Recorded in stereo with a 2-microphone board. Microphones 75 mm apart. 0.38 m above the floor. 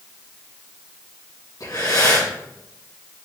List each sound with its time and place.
1.6 s breathing: 65° left (ahead or behind), 4.5 m